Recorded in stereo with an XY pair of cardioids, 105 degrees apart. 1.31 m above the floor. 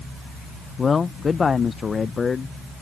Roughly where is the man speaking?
Ahead left.